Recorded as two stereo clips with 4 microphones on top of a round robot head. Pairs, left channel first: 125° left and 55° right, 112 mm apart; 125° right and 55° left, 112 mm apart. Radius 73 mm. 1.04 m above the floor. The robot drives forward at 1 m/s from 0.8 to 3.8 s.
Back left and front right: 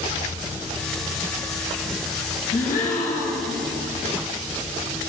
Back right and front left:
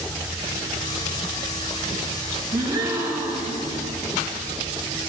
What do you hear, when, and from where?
2.5 s a gasp: 110° left, 2.5 m; by 3.6 s 135° left, 3 m